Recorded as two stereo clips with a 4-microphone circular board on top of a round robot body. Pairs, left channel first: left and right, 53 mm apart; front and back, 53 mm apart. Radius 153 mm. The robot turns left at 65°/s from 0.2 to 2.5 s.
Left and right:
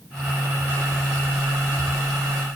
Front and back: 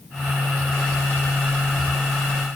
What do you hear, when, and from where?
Only background noise.